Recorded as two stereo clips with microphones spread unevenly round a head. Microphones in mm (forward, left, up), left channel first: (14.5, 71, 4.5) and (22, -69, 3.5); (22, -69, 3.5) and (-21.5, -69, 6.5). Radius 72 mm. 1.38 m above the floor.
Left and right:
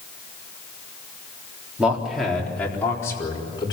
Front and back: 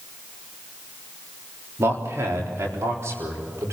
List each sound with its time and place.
1.8 s a man speaking: 170° right, 3.5 m; by 3.7 s 155° left, 5 m